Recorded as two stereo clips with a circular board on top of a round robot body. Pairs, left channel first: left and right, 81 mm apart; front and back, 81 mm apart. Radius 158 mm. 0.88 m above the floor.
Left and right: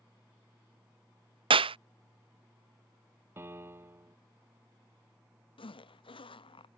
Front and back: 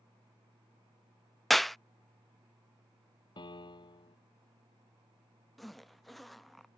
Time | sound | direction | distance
1.5 | a clap | 90° right | ?
3.4 | a piano | 25° right | ?
5.6 | a zipper | 90° left | ?